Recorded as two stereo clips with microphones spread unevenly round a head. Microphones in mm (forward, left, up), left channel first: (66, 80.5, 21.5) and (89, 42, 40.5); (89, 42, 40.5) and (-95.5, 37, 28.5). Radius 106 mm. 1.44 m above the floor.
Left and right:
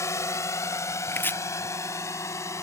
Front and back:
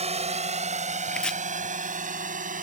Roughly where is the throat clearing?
I don't hear throat clearing.